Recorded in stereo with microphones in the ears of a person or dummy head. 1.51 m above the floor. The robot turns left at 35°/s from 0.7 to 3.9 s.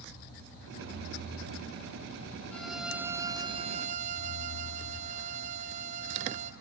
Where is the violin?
5° left, 0.7 m; by 6.5 s 45° right, 0.7 m.